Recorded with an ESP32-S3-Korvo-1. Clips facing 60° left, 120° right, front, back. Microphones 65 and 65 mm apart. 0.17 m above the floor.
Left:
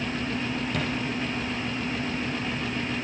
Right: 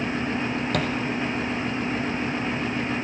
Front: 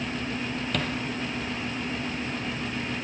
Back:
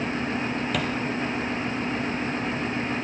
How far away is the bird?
I don't hear a bird.